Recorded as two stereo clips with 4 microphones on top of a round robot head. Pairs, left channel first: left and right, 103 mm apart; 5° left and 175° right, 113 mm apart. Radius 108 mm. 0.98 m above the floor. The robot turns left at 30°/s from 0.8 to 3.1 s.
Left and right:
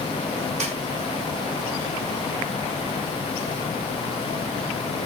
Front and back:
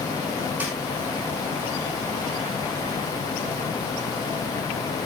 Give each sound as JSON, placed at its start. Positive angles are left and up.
{"t": 0.6, "sound": "a snare drum", "azimuth_deg": -95, "distance_m": 4.0}